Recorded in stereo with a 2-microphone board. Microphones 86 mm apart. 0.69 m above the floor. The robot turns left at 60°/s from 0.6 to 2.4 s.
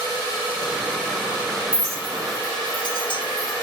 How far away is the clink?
About 1.4 m.